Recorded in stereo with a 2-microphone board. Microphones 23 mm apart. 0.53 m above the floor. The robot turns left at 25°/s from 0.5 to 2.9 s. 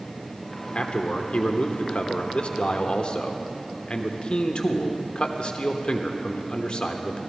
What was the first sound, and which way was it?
A man speaking, 115° left.